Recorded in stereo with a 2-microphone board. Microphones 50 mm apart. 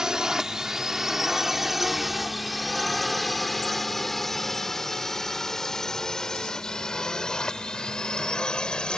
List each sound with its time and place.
0.0 s a drone: 15° right (ahead or behind); by 9.0 s 15° left (ahead or behind)